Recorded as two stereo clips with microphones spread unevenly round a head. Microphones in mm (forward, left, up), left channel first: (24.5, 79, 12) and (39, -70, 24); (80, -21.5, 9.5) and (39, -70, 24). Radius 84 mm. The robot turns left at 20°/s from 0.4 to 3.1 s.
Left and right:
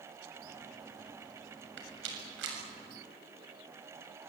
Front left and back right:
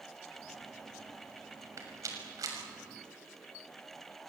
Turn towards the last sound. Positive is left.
turn(degrees=-120)